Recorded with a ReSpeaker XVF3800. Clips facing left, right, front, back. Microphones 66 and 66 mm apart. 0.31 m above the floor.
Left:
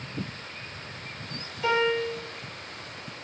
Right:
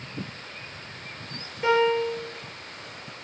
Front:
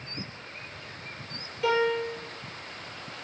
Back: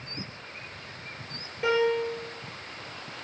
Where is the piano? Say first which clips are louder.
Right 3 dB, back 1 dB; 125° right, 1.2 m.